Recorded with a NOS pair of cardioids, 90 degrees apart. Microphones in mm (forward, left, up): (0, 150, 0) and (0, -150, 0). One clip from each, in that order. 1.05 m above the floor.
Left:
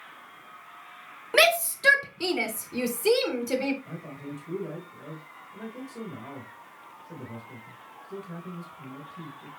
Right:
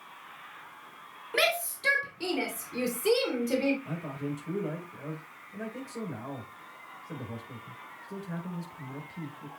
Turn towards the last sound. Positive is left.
turn(degrees=-30)